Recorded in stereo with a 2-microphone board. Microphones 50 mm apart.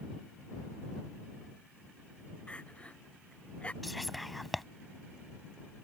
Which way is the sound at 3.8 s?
Centre (ahead or behind).